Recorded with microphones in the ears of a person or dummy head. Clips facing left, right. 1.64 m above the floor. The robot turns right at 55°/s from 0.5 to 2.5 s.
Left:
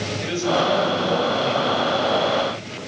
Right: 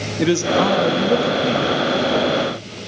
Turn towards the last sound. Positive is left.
turn(degrees=0)